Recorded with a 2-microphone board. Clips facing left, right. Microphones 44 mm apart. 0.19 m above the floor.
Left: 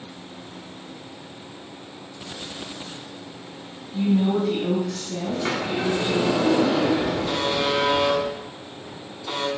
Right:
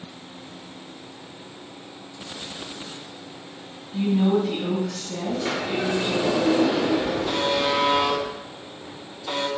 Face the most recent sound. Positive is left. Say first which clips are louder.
# right 1 dB
turn(degrees=-5)  # may be behind; listen again after turning